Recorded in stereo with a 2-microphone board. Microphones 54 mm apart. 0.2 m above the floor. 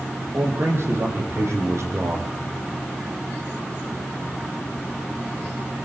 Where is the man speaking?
50° right (ahead or behind), 7.5 m; by 2.4 s 75° right (ahead or behind), 6.5 m.